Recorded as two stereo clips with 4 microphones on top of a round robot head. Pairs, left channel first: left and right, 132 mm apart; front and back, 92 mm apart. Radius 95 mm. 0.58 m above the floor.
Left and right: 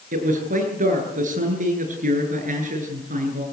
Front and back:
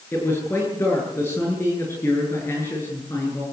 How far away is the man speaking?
About 9.5 m.